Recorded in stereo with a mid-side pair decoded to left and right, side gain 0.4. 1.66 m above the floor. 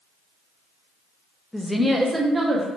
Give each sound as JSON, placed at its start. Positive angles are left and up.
{"t": 1.5, "sound": "a woman speaking", "azimuth_deg": 5, "distance_m": 0.7}